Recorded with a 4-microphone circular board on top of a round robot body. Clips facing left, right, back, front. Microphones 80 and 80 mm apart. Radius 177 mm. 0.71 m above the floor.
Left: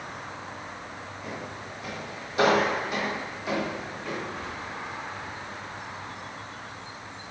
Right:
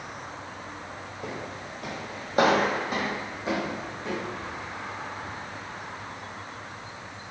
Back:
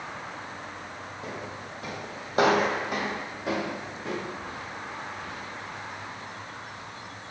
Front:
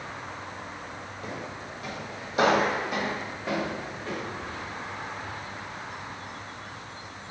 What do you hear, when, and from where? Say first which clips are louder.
1.2 s footsteps: right 2 dB, front 1 dB; 110° right, 1.9 m; by 4.2 s 155° right, 3.5 m